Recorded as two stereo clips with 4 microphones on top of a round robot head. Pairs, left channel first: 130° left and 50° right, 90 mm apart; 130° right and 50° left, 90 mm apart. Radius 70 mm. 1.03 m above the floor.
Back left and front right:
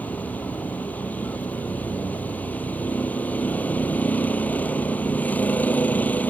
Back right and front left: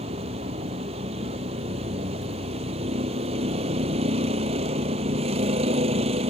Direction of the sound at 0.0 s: 55° left.